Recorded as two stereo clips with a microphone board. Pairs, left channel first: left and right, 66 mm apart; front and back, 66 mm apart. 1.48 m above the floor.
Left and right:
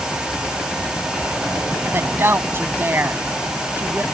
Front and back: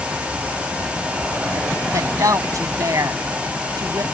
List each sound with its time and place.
1.9 s a woman speaking: 145° right